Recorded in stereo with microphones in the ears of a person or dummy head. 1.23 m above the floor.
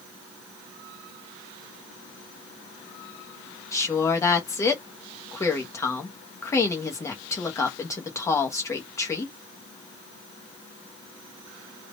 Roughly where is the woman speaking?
Centre.